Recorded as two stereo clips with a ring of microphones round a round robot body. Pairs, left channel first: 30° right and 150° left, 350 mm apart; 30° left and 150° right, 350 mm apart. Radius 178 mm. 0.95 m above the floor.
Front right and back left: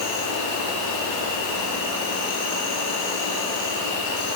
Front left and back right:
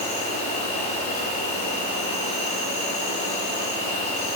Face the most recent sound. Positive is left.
turn(degrees=-40)